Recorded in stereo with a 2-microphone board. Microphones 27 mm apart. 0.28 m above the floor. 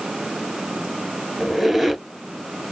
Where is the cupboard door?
I don't hear a cupboard door.